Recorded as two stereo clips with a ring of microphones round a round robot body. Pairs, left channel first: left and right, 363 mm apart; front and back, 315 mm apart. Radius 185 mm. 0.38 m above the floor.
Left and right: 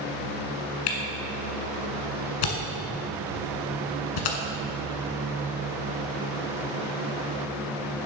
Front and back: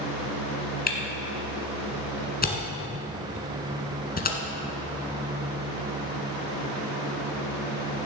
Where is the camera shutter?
65° left, 1.7 m.